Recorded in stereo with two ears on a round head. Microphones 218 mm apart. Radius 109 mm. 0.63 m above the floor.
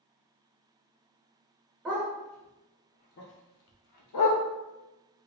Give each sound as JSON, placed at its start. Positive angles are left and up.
{"t": 1.9, "sound": "a dog barking", "side_deg": -5, "distance_m": 0.9}